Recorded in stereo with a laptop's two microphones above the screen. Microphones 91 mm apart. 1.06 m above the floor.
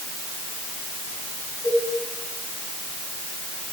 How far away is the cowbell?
About 5.5 m.